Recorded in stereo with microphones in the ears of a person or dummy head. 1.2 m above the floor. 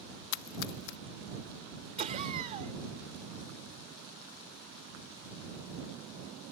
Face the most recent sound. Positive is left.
turn(degrees=-25)  # may be behind; listen again after turning